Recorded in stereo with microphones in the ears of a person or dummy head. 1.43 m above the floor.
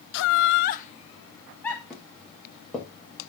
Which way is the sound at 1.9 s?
5° left (ahead or behind).